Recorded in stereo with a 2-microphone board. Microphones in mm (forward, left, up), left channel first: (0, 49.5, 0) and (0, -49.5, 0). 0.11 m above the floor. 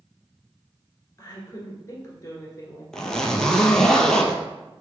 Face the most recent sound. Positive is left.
turn(degrees=10)  # may be behind; listen again after turning